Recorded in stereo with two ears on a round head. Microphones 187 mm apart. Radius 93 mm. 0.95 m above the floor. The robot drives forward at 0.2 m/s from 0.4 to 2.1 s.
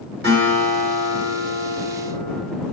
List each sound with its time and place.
0.2 s a guitar: 55° right (ahead or behind), 1.6 m; by 2.4 s 65° right (ahead or behind), 1.5 m